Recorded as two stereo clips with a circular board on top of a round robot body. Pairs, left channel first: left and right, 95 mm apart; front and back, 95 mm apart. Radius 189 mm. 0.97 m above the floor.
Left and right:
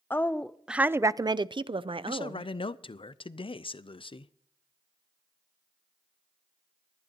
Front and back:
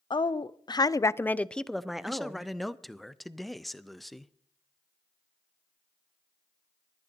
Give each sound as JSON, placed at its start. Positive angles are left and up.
{"t": 0.1, "sound": "a woman speaking", "azimuth_deg": 25, "distance_m": 0.7}
{"t": 2.1, "sound": "a man speaking", "azimuth_deg": 90, "distance_m": 0.6}